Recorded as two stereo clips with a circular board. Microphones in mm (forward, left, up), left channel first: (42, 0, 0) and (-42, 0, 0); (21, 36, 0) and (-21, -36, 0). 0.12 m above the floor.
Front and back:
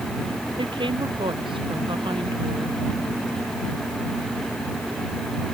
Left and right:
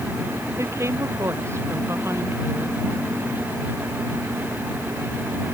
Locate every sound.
0.6 s a woman speaking: 175° right